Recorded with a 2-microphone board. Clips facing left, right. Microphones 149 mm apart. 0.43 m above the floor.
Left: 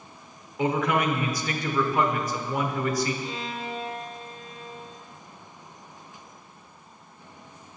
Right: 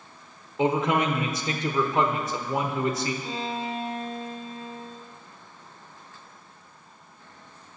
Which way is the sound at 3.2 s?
35° right (ahead or behind).